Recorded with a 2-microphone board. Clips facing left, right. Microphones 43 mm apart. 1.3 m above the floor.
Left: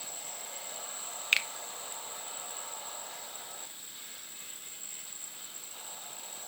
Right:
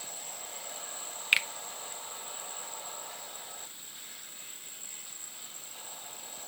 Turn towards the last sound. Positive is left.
turn(degrees=-10)  # may be behind; listen again after turning